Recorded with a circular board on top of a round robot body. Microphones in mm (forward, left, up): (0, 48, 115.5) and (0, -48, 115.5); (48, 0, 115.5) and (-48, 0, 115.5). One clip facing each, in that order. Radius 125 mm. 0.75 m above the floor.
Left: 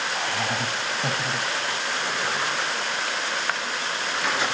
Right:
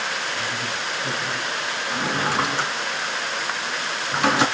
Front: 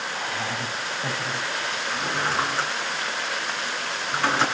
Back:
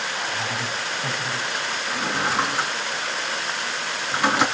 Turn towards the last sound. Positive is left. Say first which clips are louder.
# right 8 dB, back 2 dB
turn(degrees=-100)